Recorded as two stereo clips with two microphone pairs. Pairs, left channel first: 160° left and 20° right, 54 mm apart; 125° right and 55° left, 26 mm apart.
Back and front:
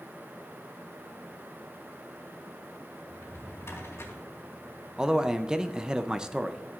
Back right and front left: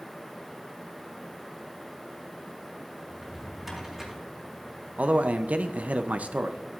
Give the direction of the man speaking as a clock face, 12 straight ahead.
10 o'clock.